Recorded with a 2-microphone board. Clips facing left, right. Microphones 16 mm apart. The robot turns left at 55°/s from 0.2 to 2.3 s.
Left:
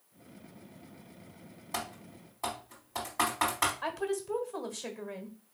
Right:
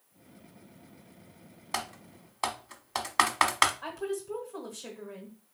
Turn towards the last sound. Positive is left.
turn(degrees=30)  # may be behind; listen again after turning